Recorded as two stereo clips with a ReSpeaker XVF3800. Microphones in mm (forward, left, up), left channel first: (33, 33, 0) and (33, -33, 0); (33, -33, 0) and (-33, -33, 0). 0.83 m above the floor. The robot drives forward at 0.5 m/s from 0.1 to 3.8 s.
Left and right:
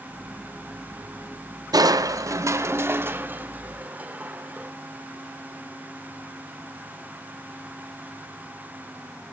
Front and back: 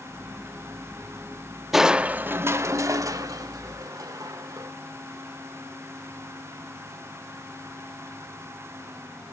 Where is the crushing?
90° right, 0.5 m; by 4.7 s 155° right, 1.2 m.